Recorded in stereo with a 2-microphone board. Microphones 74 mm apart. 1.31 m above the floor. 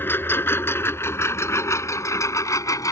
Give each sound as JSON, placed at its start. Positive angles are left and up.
{"t": 0.0, "sound": "a lawn mower", "side_deg": 30}